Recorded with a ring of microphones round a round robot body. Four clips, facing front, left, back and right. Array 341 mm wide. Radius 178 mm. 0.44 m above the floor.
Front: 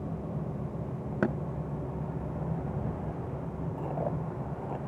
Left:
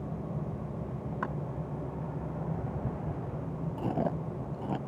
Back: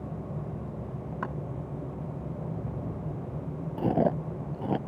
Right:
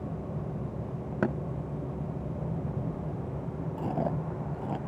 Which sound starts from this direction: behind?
Chewing, at 3.8 s.